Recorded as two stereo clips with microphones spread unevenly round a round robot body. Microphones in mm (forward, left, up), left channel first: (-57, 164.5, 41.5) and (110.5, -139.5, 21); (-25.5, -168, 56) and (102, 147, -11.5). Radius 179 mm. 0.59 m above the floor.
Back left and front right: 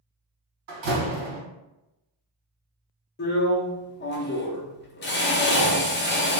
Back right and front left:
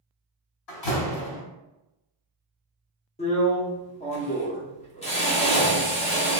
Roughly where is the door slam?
Right.